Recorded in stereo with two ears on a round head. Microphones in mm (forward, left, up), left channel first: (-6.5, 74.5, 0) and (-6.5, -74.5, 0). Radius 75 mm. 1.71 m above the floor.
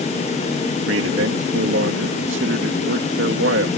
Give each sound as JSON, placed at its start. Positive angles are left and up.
{"t": 0.9, "sound": "a man speaking", "side_deg": -80}